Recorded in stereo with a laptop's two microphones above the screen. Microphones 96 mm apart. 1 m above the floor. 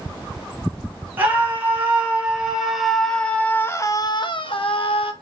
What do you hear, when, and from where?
1.2 s a scream: 20° right (ahead or behind), 4.5 m; by 5.1 s 75° left (ahead or behind), 2 m